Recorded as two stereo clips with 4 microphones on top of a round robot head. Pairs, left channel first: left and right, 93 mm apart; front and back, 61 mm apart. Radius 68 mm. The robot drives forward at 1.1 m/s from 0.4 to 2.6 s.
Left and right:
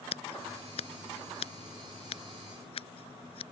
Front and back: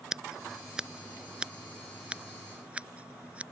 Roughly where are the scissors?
Left.